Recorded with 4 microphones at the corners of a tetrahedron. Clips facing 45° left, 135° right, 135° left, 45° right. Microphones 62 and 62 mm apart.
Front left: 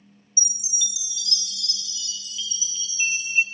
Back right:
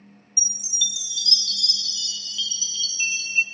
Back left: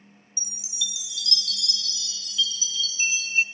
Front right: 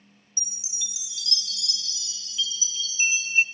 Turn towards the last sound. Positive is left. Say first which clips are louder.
# back right 3 dB, back left 6 dB
turn(degrees=-10)